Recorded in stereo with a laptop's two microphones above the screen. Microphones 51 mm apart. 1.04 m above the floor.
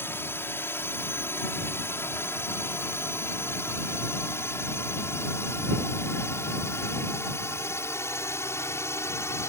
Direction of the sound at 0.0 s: 50° left (ahead or behind).